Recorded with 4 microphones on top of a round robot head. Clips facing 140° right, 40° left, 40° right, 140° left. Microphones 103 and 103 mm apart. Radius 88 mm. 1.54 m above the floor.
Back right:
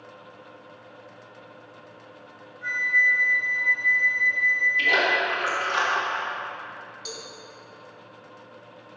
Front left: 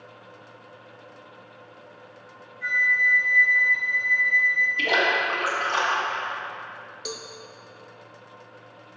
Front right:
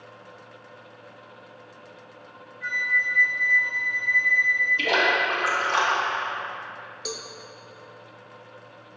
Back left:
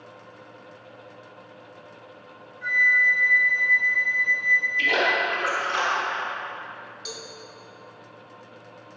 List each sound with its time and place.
2.6 s a flute: 80° left, 1.2 m
4.8 s a splash: 10° right, 1.7 m
7.0 s a cowbell: 5° left, 0.7 m